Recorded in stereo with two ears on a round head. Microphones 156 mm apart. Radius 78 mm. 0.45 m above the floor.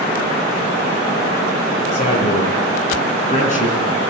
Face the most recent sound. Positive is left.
turn(degrees=45)  # may be behind; listen again after turning